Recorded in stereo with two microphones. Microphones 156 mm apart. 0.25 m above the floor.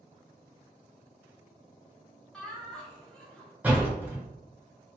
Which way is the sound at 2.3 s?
5° left (ahead or behind).